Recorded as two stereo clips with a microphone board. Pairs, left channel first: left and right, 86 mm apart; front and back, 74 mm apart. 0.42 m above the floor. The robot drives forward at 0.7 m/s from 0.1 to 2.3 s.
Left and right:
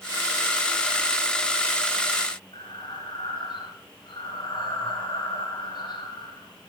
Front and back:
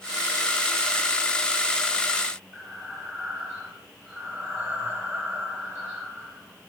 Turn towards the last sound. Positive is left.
turn(degrees=115)